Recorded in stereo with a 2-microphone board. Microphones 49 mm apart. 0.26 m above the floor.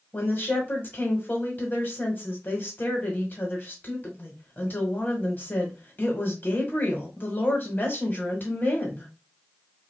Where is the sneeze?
No sneeze in this recording.